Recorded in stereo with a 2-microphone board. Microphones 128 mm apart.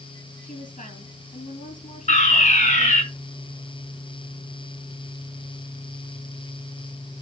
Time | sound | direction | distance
0.4 | a woman speaking | 80° left | 7.5 m
2.1 | a fire alarm | 65° left (ahead or behind) | 5 m